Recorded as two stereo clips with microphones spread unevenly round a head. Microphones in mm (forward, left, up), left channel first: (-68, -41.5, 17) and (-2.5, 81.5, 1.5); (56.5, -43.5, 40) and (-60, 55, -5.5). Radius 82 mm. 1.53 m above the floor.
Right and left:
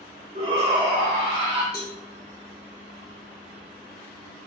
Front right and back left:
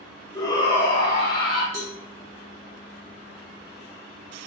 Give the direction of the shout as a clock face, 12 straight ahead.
11 o'clock.